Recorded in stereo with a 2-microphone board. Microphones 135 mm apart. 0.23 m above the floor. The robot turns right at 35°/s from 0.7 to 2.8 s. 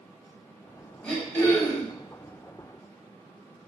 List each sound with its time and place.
1.0 s throat clearing: 10° left (ahead or behind), 0.7 m; by 1.9 s 20° left (ahead or behind), 0.7 m